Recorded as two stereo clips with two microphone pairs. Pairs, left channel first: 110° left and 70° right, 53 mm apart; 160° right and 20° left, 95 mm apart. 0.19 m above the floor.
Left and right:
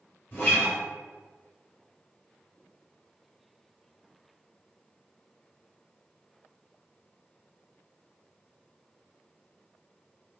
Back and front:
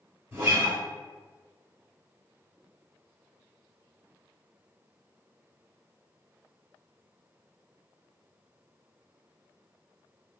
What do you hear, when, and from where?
0.3 s a guitar: 75° left, 1.5 m